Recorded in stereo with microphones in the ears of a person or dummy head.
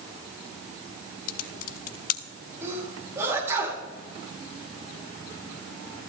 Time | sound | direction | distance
1.3 | typing on a keyboard | 50° left (ahead or behind) | 0.6 m
2.6 | a sneeze | 10° right (ahead or behind) | 4 m